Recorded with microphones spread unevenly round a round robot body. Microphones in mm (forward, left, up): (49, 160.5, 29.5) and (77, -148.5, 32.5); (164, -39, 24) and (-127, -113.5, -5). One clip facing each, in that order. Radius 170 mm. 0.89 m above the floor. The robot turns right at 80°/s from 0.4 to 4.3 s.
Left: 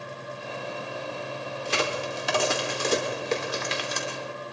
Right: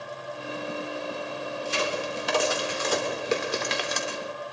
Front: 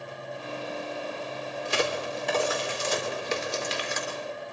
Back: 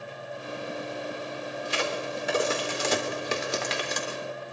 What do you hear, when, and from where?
1.6 s a crack: 60° left, 3 m; by 4.2 s 95° right, 3 m